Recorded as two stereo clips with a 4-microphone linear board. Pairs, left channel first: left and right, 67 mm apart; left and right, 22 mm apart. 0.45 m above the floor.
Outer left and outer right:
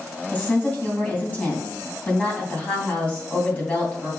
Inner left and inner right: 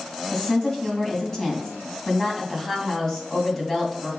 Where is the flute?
I don't hear a flute.